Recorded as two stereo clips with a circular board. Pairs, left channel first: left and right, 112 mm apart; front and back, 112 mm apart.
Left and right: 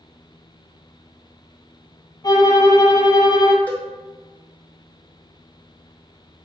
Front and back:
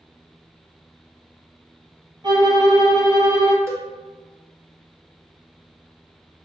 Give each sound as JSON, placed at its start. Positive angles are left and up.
{"t": 2.2, "sound": "a violin", "azimuth_deg": 140, "distance_m": 0.7}
{"t": 3.7, "sound": "a cowbell", "azimuth_deg": 150, "distance_m": 0.9}